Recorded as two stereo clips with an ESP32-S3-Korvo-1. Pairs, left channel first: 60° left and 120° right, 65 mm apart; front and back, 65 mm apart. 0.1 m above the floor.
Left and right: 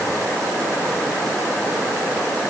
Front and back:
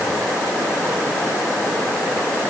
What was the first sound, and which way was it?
Only background noise.